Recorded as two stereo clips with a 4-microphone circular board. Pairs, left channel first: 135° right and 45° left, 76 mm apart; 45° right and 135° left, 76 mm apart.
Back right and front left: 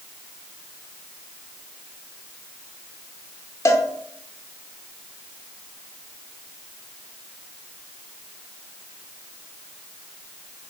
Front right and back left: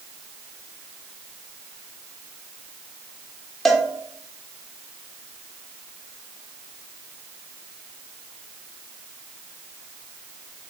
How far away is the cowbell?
About 0.6 m.